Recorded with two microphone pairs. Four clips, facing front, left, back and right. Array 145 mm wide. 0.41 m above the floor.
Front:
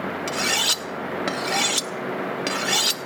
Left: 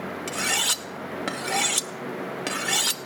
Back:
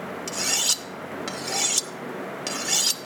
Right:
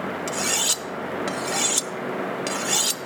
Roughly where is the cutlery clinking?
Ahead left.